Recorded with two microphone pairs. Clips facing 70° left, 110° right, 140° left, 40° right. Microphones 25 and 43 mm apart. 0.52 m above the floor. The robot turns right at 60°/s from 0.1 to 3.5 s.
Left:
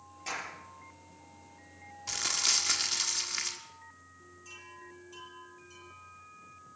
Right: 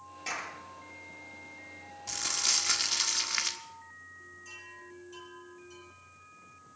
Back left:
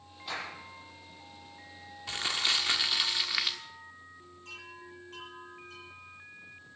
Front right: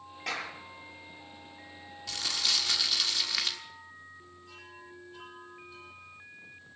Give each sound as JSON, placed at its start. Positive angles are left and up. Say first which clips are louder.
{"t": 0.3, "sound": "a clap", "louder": "right 1 dB, front right 2 dB", "azimuth_deg": -35, "distance_m": 9.0}
{"t": 2.1, "sound": "crumpling", "louder": "left 1 dB, back left 2 dB", "azimuth_deg": 125, "distance_m": 1.3}
{"t": 4.5, "sound": "a chime", "louder": "left 1 dB, back left 5 dB", "azimuth_deg": 155, "distance_m": 9.0}